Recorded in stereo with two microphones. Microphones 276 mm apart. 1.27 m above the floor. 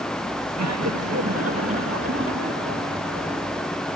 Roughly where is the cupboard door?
I don't hear a cupboard door.